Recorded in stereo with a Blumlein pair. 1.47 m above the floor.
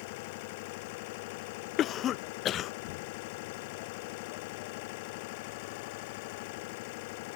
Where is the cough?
30° left.